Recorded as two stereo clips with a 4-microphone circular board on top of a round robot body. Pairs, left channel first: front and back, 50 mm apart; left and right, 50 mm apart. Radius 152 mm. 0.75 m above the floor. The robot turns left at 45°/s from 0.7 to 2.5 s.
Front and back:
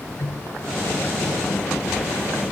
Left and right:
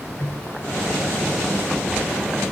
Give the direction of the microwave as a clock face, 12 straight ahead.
10 o'clock.